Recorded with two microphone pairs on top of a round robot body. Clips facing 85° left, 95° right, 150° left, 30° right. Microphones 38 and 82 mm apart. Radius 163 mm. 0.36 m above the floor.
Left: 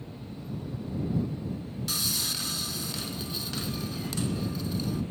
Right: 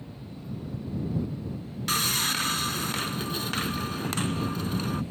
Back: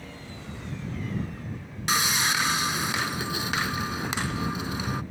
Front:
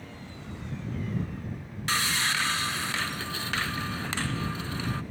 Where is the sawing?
135° right.